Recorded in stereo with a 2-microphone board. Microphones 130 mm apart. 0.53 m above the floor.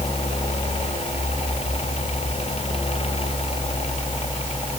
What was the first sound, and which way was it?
Only background noise.